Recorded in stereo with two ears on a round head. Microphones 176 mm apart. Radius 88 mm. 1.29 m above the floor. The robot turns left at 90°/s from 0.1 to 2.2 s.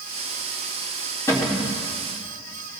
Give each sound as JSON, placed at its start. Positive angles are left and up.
{"t": 1.3, "sound": "a cupboard door", "azimuth_deg": 15, "distance_m": 2.0}